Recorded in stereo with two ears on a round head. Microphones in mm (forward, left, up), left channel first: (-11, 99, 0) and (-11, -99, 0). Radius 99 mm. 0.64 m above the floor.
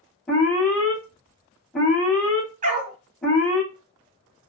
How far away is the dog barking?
About 2.5 m.